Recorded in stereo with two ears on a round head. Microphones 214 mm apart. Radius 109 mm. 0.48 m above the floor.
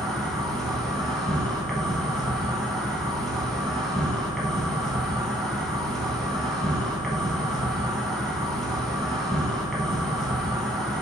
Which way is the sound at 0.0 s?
5° left (ahead or behind).